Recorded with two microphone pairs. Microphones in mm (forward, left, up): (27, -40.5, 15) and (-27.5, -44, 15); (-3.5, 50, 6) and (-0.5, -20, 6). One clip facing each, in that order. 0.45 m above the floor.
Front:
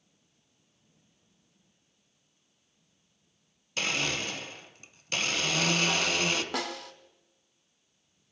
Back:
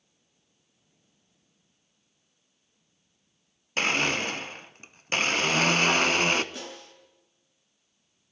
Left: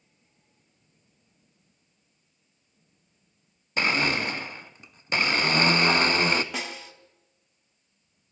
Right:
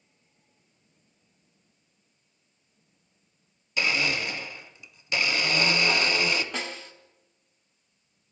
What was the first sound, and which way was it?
A blender, 135° left.